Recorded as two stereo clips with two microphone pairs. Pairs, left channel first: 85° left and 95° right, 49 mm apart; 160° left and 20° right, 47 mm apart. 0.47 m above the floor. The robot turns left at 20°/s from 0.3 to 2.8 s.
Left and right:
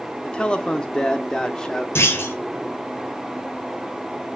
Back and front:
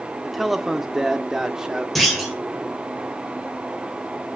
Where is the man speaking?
60° left, 1.0 m; by 1.9 s 30° left, 1.0 m.